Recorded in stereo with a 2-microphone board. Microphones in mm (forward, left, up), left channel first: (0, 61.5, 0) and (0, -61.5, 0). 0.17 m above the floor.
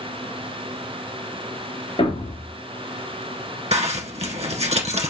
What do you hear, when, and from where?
2.0 s a thud: 50° left (ahead or behind), 1.4 m
3.7 s a zipper: 60° right (ahead or behind), 1.0 m